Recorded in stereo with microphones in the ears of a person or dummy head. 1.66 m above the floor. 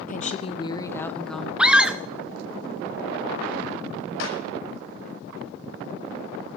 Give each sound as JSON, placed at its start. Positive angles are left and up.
{"t": 0.1, "sound": "a woman speaking", "side_deg": 45, "distance_m": 1.0}
{"t": 1.6, "sound": "a scream", "side_deg": -5, "distance_m": 0.7}
{"t": 4.2, "sound": "a clap", "side_deg": 75, "distance_m": 8.0}